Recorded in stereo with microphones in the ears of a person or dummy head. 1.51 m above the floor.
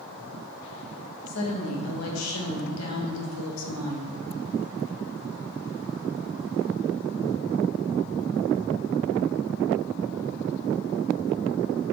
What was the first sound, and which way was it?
A woman speaking, 85° left.